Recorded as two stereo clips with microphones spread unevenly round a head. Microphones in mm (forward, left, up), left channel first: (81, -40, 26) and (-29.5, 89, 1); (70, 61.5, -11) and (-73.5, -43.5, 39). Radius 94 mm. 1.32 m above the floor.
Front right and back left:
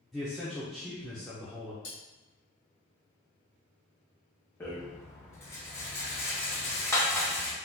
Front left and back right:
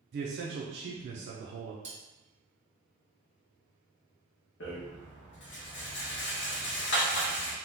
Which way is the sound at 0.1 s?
150° right.